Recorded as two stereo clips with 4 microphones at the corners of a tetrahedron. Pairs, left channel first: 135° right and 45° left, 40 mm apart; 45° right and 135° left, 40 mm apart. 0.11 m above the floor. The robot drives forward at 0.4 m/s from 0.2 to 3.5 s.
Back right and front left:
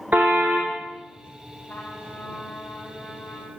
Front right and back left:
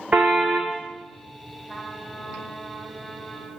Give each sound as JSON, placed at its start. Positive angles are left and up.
{"t": 0.1, "sound": "a car horn", "azimuth_deg": 80, "distance_m": 3.5}
{"t": 1.7, "sound": "a trumpet", "azimuth_deg": -150, "distance_m": 4.5}